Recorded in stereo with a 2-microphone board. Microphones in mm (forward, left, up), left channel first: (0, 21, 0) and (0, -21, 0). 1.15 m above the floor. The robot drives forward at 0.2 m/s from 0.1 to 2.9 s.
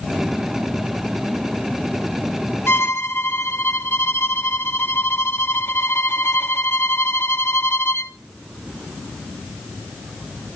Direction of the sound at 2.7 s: 70° left (ahead or behind).